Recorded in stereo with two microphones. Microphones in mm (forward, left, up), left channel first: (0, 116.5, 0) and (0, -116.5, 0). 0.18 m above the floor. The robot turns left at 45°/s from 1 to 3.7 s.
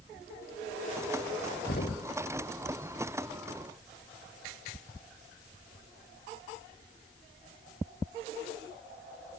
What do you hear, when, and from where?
1.7 s knocking: 45° left (ahead or behind); by 2.1 s 25° left (ahead or behind)